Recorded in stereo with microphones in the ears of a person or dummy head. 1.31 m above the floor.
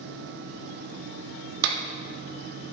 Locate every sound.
1.6 s a clap: 75° right (ahead or behind), 1.8 m